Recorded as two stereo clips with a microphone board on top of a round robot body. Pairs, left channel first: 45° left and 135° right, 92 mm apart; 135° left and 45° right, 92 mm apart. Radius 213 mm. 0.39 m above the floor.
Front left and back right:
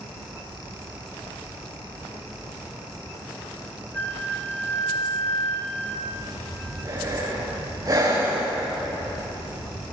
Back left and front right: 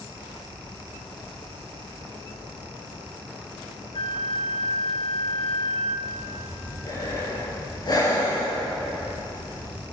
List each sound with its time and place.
3.9 s a flute: 115° left, 3 m
6.1 s breathing: 175° left, 10 m